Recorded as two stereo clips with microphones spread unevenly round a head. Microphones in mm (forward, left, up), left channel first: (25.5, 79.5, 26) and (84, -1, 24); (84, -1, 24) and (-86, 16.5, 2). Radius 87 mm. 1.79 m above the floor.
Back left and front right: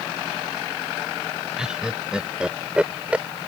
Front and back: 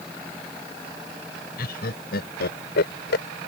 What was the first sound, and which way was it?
Laughter, 30° left.